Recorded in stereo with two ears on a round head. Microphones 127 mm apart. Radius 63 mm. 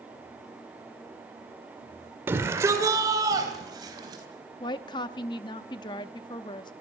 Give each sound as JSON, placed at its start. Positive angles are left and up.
{"t": 2.3, "sound": "a shout", "side_deg": -15, "distance_m": 1.6}
{"t": 4.6, "sound": "a woman speaking", "side_deg": 30, "distance_m": 0.7}